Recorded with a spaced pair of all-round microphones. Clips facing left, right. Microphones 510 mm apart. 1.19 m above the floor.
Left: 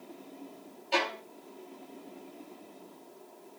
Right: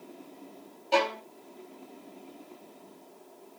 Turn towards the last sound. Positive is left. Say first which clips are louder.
# right 6 dB
turn(degrees=-60)  # may be behind; listen again after turning